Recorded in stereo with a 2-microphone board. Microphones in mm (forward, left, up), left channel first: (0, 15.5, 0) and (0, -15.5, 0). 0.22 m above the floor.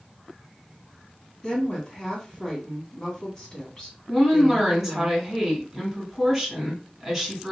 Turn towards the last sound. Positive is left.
turn(degrees=-5)  # may be behind; listen again after turning